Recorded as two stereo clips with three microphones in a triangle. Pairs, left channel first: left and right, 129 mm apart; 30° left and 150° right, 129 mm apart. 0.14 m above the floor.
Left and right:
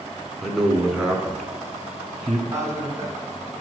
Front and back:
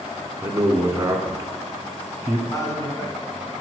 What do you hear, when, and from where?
0.4 s a man speaking: 175° right, 1.1 m
2.5 s a man speaking: 30° right, 1.7 m